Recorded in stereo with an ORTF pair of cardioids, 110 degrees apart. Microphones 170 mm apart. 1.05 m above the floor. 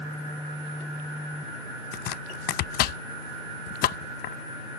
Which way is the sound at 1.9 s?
70° left.